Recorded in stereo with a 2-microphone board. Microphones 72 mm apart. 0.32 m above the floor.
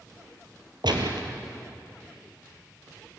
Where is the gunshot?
85° right, 2.5 m.